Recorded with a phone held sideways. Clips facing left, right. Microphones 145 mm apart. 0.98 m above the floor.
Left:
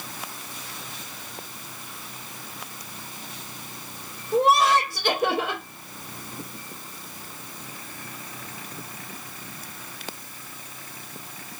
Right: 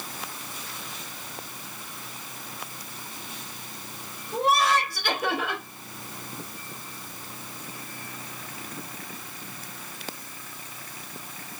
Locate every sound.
4.3 s laughter: 40° left (ahead or behind), 2 m